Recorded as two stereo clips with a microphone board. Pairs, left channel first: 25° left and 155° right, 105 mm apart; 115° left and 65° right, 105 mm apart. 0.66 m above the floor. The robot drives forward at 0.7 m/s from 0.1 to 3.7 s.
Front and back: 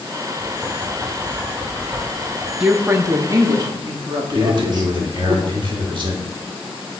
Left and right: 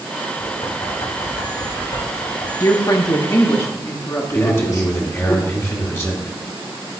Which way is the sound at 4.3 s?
175° left.